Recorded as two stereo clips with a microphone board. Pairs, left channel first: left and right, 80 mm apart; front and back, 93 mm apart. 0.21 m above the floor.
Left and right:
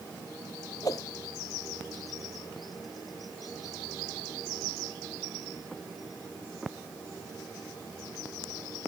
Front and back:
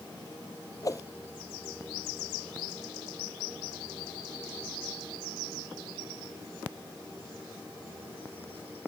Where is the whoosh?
50° left.